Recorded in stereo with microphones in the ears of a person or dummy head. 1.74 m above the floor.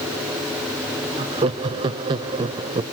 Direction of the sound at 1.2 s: 25° right (ahead or behind).